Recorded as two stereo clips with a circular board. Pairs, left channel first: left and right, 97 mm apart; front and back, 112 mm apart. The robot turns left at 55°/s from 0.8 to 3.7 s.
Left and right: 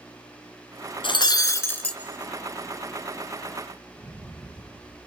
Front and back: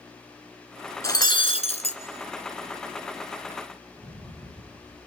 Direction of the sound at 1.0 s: 55° left.